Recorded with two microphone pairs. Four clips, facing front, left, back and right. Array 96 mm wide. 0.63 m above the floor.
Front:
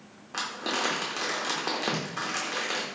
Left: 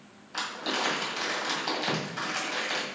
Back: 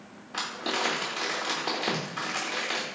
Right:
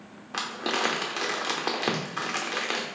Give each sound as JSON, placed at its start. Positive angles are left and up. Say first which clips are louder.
{"t": 0.3, "sound": "crumpling", "louder": "right 3 dB, even", "azimuth_deg": -75, "distance_m": 0.8}